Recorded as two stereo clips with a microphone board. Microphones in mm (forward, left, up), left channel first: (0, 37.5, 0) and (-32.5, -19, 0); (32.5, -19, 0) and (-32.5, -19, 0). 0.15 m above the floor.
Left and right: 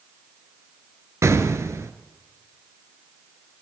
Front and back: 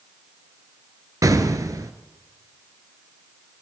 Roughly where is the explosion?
Behind.